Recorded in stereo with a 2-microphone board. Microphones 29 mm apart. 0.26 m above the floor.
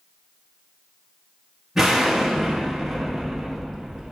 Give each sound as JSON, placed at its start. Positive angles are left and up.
{"t": 1.8, "sound": "an explosion", "side_deg": -10, "distance_m": 1.3}